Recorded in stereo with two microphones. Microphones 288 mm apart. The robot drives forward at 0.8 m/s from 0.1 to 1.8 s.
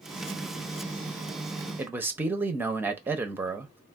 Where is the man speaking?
5° right (ahead or behind), 0.6 m.